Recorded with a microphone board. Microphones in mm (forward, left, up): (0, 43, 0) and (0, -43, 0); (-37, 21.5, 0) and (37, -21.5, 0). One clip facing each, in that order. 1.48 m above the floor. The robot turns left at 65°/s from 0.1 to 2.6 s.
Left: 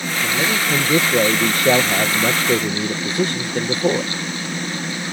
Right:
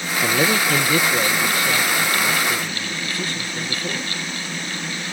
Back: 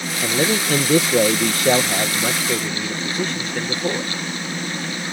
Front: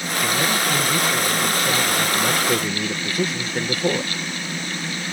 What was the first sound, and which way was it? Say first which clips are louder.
A man speaking: right 2 dB, back 3 dB; 150° right.